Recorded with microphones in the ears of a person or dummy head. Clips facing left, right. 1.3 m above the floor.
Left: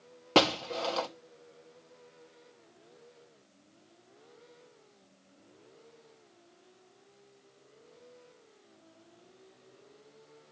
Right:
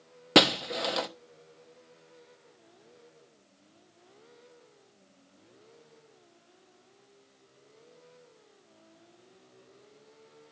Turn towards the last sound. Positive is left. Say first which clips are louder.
# right 2 dB
turn(degrees=-25)  # may be behind; listen again after turning